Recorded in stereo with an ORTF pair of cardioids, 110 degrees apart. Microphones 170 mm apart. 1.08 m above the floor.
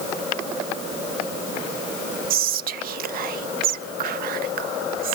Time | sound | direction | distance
2.3 | whispering | 65° right | 0.6 m